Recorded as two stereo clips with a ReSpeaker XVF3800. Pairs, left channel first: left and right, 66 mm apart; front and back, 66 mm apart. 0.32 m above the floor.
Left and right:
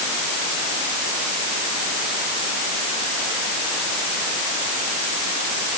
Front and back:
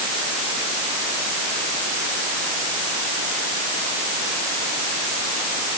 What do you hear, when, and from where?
Only background noise.